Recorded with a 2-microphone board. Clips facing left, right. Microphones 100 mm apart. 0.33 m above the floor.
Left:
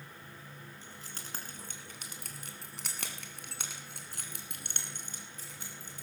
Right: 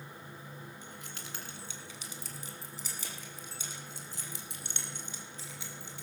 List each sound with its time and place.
0.8 s keys jangling: 35° left (ahead or behind), 3 m; by 6.0 s 45° left (ahead or behind), 4.5 m